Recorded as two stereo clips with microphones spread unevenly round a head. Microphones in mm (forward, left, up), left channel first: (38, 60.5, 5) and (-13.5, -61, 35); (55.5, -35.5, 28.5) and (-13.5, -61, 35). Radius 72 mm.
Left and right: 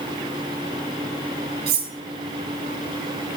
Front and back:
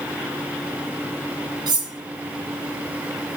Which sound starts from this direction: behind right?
Cutlery clinking, at 1.7 s.